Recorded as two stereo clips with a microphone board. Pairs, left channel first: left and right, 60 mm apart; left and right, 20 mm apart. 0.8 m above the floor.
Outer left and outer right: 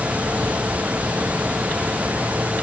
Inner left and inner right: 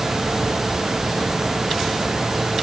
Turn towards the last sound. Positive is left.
No sound to turn to.